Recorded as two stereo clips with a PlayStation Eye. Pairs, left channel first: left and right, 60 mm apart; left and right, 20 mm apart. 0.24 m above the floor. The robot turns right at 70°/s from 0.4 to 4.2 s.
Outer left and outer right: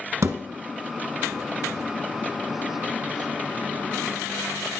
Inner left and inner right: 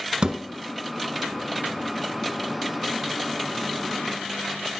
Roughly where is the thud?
Right.